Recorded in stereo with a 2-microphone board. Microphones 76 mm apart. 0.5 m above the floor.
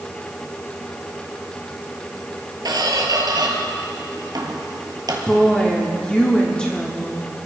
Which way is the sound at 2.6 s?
55° right (ahead or behind).